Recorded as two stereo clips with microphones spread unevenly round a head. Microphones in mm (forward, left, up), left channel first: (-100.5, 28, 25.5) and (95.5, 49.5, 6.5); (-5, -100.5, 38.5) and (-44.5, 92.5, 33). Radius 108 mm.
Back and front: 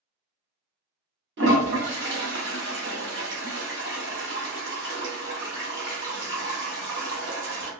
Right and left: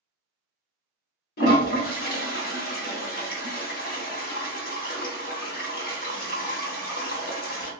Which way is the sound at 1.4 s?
35° right.